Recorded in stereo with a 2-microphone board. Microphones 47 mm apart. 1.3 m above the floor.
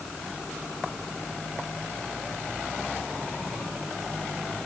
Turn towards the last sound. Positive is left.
No sound to turn to.